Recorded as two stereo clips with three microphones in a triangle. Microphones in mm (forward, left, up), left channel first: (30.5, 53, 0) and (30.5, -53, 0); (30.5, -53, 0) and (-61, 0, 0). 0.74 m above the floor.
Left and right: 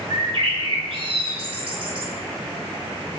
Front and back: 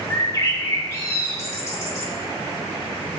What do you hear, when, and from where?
0.1 s a bird: 90° right, 0.5 m